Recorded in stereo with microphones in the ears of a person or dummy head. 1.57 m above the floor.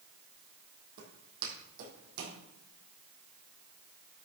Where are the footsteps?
60° right (ahead or behind), 3 m; by 2.4 s 65° right (ahead or behind), 4 m.